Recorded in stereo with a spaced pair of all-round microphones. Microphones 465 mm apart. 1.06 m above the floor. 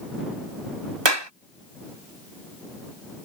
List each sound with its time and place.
1.1 s a clap: 70° right (ahead or behind)